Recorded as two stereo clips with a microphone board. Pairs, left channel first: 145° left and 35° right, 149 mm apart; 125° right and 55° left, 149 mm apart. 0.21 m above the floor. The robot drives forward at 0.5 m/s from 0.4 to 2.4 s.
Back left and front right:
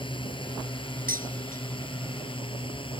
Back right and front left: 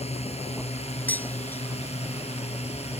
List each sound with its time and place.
0.0 s a drone: 165° right
1.1 s dishes clattering: 45° right; by 1.6 s 50° right